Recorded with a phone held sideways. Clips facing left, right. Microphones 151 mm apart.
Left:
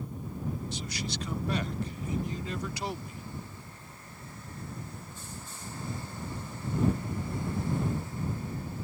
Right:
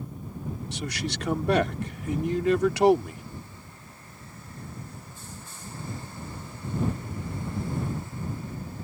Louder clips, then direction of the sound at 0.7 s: Right 4 dB; 75° right (ahead or behind).